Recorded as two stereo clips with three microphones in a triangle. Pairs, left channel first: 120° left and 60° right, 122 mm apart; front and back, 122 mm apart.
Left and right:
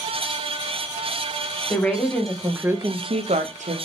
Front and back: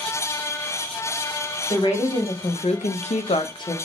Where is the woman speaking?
45° left, 1.2 m; by 3.8 s 60° right, 0.8 m.